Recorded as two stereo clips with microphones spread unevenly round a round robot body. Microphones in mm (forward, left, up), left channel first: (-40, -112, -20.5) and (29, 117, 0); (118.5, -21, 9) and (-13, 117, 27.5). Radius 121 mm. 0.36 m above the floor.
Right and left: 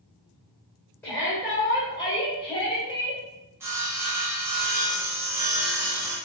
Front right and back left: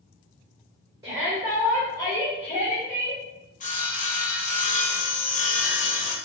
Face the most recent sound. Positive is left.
turn(degrees=-10)